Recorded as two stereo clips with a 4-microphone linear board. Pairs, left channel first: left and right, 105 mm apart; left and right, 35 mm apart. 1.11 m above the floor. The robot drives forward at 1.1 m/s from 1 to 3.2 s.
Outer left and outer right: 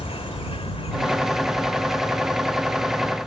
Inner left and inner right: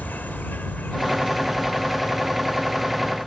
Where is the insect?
65° left (ahead or behind); by 3.3 s 40° left (ahead or behind).